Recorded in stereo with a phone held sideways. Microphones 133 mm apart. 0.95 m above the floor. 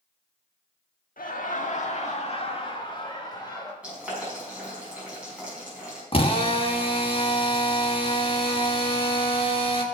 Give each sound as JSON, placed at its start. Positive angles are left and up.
{"t": 1.2, "sound": "laughter", "side_deg": 75, "distance_m": 1.5}
{"t": 3.8, "sound": "boiling", "side_deg": -10, "distance_m": 6.0}
{"t": 6.1, "sound": "a drill", "side_deg": 40, "distance_m": 1.3}